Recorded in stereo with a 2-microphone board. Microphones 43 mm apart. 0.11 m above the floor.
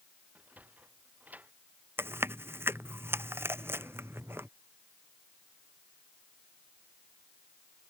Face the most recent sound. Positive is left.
turn(degrees=-70)  # may be behind; listen again after turning